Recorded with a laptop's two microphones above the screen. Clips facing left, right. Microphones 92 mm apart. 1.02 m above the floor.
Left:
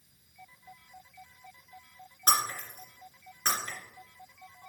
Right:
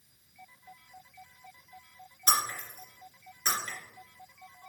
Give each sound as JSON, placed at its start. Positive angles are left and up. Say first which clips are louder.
{"t": 2.3, "sound": "breaking glass", "louder": "left 1 dB", "side_deg": 50, "distance_m": 3.0}